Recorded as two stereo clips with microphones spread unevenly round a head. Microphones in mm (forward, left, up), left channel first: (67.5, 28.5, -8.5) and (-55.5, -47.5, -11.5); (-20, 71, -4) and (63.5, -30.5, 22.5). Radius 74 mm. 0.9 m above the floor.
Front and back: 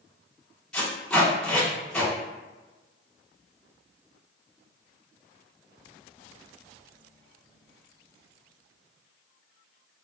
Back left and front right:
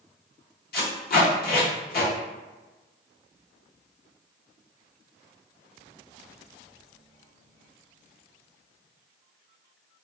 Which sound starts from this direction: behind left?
Tape being pulled, at 0.7 s.